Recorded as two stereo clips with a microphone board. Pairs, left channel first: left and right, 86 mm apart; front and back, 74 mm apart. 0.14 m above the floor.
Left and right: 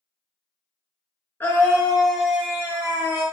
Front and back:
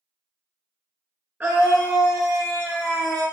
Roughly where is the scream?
Behind left.